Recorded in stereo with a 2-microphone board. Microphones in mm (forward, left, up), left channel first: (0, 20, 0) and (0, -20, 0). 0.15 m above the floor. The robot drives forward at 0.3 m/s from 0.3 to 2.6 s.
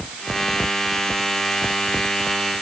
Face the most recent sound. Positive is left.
No sound to turn to.